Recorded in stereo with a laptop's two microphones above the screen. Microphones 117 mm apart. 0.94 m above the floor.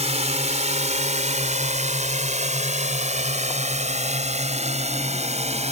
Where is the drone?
65° right (ahead or behind).